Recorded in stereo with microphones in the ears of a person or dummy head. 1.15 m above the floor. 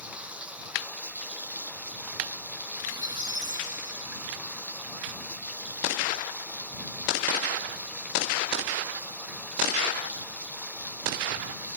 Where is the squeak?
20° right (ahead or behind).